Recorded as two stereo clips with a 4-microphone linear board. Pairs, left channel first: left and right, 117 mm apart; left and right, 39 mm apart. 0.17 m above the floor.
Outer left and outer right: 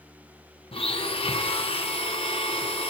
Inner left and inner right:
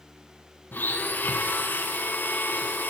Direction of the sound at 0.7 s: 50° left (ahead or behind).